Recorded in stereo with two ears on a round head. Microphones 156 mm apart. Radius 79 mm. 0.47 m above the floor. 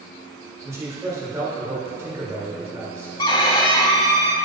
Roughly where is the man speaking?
Centre.